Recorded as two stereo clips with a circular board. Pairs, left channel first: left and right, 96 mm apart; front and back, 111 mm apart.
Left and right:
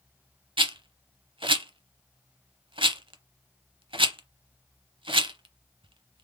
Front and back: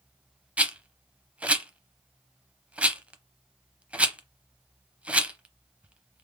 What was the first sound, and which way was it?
A rattle, 100° right.